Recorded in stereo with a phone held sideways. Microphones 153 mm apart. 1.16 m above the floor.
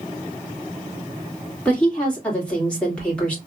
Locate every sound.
1.6 s a woman speaking: 10° left (ahead or behind), 2.0 m